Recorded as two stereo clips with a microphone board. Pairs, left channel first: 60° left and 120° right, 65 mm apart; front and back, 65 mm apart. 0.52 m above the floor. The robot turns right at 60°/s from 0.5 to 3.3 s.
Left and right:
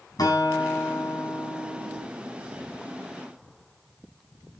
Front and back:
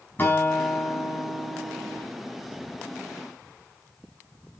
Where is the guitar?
60° left, 4 m; by 2.0 s 150° left, 4 m.